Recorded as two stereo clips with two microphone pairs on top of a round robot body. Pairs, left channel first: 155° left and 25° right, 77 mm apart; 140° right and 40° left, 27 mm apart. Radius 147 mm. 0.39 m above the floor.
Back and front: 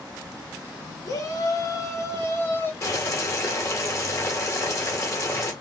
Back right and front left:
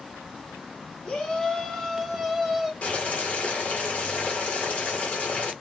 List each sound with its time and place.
1.1 s a shout: 165° left, 2.5 m; by 2.7 s 110° left, 1.7 m
2.8 s boiling: 170° right, 2 m